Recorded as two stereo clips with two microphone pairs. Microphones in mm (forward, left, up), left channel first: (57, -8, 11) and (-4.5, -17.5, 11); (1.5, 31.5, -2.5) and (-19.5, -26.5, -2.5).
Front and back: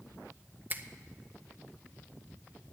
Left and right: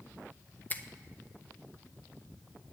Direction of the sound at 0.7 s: 130° left.